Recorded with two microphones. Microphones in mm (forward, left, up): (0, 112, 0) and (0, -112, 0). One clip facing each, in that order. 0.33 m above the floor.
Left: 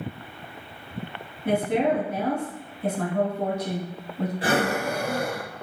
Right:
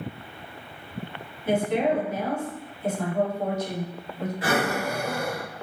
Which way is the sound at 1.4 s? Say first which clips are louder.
Left 1 dB; 60° left (ahead or behind).